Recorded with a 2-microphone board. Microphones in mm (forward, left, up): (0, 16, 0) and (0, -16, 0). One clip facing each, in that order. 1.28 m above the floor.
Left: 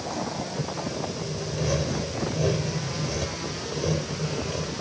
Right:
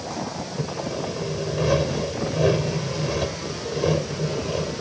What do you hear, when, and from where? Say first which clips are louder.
0.6 s sawing: right 6 dB; 30° right (ahead or behind)